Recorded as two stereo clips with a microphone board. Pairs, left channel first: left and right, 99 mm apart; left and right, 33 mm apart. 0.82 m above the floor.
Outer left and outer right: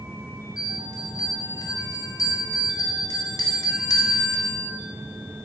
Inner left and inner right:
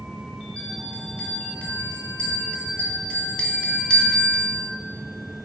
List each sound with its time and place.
0.6 s a bell: 35° left (ahead or behind), 1.5 m